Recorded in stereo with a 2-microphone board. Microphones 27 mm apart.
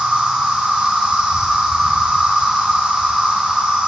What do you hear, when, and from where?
0.0 s an insect: 45° right (ahead or behind), 2.5 m